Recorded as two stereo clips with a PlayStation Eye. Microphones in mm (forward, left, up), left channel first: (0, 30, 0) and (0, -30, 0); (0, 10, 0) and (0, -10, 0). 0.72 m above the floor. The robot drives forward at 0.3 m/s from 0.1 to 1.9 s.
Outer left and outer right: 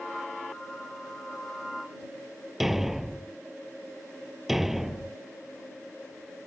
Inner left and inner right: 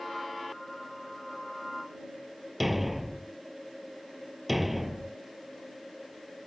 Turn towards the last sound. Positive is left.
turn(degrees=-5)  # may be behind; listen again after turning